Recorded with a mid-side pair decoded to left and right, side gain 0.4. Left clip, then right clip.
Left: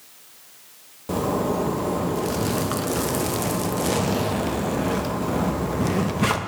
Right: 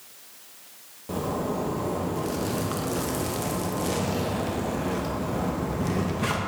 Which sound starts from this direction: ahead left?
A zipper, at 1.1 s.